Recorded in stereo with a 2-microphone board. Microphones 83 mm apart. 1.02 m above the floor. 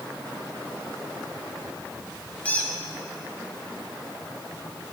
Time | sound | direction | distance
2.5 | a squeak | 15° left (ahead or behind) | 0.8 m